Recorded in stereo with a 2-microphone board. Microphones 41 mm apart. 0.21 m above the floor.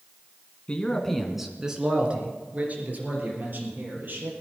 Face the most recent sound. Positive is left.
turn(degrees=-50)  # may be behind; listen again after turning